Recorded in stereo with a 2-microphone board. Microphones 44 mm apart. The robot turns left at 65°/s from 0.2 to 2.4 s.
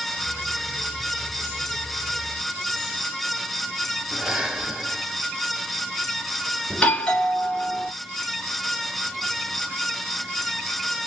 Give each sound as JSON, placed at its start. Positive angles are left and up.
{"t": 4.1, "sound": "breathing", "side_deg": -15, "distance_m": 1.8}
{"t": 6.7, "sound": "a doorbell", "side_deg": 20, "distance_m": 1.5}